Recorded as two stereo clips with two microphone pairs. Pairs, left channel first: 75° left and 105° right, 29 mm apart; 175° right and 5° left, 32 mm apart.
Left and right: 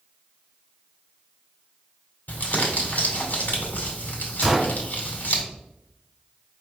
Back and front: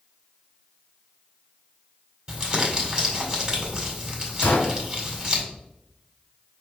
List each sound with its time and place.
2.3 s crumpling: 60° left, 1.8 m
4.4 s a gunshot: straight behind, 1.1 m